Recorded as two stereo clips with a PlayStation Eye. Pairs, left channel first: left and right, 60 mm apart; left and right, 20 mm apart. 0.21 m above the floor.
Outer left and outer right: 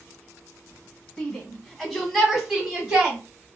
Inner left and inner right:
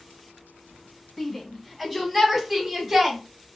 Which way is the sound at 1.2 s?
10° left (ahead or behind).